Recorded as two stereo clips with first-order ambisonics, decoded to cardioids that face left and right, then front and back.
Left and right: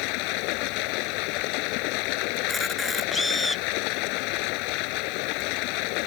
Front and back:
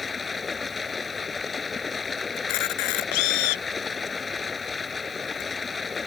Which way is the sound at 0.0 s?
75° left.